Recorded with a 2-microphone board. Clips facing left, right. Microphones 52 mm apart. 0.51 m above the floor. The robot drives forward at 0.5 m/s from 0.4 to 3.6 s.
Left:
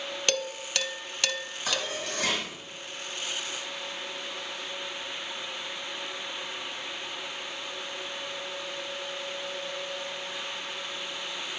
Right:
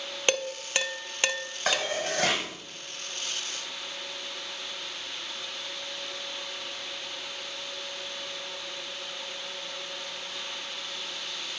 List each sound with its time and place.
0.3 s dishes clattering: 20° right (ahead or behind), 0.6 m
1.7 s dishes clattering: 60° right (ahead or behind), 1.8 m; by 2.5 s 70° right (ahead or behind), 1.6 m